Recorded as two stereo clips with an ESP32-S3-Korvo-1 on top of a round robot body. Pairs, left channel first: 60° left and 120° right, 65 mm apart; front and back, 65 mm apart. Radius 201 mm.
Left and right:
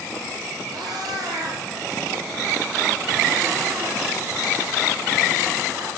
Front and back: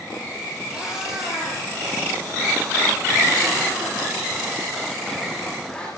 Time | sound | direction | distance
0.7 | a cat meowing | 100° right | 8 m